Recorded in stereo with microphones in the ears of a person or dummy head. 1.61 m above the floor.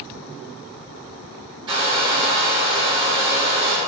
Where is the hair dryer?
20° right (ahead or behind), 3 m.